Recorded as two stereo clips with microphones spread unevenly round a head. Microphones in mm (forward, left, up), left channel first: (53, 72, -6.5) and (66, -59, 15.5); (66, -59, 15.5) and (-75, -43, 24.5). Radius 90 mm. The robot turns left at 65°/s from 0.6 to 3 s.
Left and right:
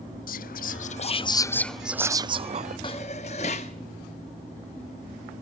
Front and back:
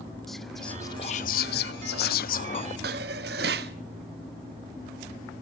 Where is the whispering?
80° left, 0.8 m; by 2.7 s 55° right, 0.8 m.